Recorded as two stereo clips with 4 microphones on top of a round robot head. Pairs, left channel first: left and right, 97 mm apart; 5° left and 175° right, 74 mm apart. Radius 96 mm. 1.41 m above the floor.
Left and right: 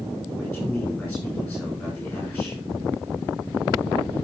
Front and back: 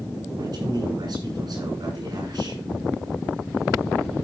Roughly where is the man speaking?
Behind.